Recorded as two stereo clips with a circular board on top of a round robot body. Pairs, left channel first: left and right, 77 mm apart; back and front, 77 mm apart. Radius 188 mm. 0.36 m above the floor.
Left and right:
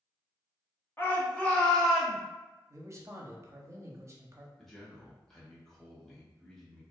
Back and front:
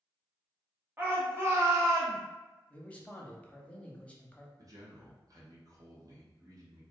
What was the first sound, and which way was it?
A shout, 45° left.